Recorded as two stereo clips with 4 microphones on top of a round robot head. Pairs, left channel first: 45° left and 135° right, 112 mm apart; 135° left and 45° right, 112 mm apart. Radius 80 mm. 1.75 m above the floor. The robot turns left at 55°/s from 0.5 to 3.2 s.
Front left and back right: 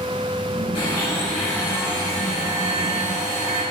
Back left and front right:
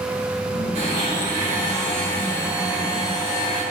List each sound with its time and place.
0.8 s a blender: 5° right, 4 m; by 3.6 s 140° right, 4 m